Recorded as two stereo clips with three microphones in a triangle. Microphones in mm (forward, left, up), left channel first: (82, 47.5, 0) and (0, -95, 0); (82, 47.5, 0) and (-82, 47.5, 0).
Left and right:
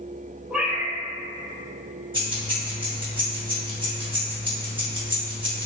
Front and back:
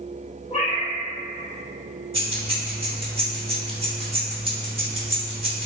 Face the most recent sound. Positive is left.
turn(degrees=-155)